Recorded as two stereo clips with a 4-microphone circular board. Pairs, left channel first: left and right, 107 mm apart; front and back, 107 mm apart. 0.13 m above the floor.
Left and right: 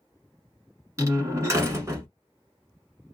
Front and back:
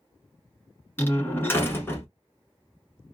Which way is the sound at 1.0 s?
55° right.